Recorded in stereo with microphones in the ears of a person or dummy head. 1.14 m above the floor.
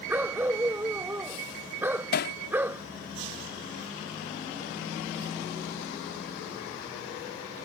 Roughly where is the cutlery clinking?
I don't hear cutlery clinking.